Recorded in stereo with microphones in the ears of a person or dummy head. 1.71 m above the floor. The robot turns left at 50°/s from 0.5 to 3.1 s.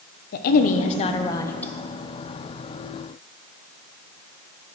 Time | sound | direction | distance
0.3 | a woman speaking | 65° left | 0.8 m